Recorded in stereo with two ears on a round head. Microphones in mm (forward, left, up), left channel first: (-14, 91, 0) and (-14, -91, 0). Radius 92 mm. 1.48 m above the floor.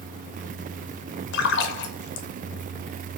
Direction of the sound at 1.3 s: 55° left (ahead or behind).